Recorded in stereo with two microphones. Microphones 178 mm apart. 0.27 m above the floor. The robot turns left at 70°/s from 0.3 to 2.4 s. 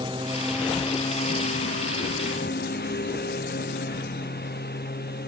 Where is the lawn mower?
155° right; by 5.3 s 60° left.